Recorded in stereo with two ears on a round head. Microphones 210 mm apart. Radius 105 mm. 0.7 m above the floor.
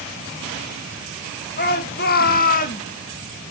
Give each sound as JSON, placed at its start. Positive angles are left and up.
{"t": 1.6, "sound": "a shout", "side_deg": 45, "distance_m": 1.8}